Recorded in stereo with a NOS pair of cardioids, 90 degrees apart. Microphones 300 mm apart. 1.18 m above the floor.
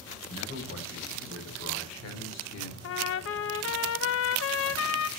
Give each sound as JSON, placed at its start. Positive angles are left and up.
{"t": 0.3, "sound": "a man speaking", "azimuth_deg": 55, "distance_m": 6.0}
{"t": 2.8, "sound": "a trumpet", "azimuth_deg": 50, "distance_m": 0.9}